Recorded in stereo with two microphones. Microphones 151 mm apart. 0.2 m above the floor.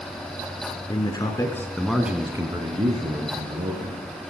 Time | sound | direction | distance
0.9 | a man speaking | 30° left (ahead or behind) | 2.5 m